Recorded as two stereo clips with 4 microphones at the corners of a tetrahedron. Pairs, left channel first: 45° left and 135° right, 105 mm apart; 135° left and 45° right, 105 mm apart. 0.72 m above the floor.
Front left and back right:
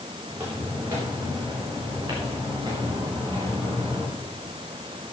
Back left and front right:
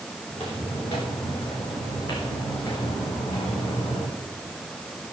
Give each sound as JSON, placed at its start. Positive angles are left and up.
{"t": 0.3, "sound": "footsteps", "azimuth_deg": 160, "distance_m": 6.5}